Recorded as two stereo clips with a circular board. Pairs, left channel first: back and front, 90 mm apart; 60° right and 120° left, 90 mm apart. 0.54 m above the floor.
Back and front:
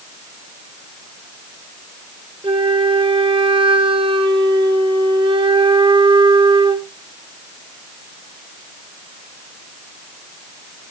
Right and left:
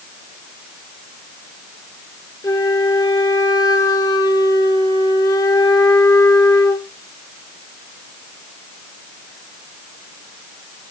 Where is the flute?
15° right, 0.7 m.